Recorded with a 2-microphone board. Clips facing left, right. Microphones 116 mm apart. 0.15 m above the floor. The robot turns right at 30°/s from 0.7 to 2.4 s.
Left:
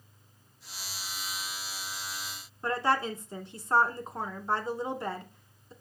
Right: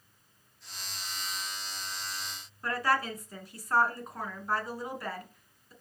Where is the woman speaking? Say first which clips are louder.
Left 2 dB; 25° left (ahead or behind), 1.2 m.